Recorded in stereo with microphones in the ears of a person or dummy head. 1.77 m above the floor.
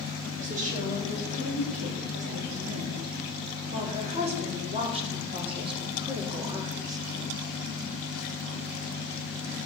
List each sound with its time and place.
0.4 s a woman speaking: 40° right (ahead or behind), 8 m; by 7.0 s 20° right (ahead or behind), 4 m